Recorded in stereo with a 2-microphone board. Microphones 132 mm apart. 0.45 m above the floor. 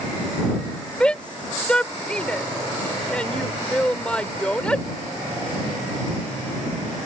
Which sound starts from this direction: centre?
A shout, at 1.0 s.